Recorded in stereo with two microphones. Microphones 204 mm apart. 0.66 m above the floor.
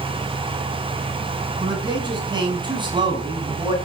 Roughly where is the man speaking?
Right.